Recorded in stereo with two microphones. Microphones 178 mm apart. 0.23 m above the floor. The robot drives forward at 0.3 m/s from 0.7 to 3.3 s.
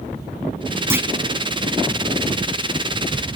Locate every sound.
0.9 s a clunk: 15° right (ahead or behind), 0.7 m; by 1.1 s 10° right (ahead or behind), 0.7 m